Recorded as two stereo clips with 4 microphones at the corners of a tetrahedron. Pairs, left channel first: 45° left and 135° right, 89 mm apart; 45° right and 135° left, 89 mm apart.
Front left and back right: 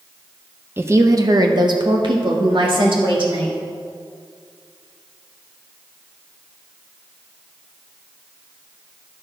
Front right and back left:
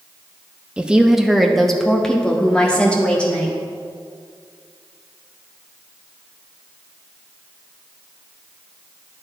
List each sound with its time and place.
0.8 s a woman speaking: 165° right, 0.8 m; by 3.6 s 120° right, 2.5 m